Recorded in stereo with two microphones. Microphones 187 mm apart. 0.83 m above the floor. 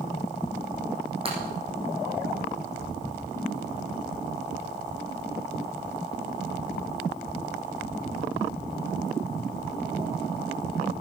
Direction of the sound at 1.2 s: 30° right (ahead or behind).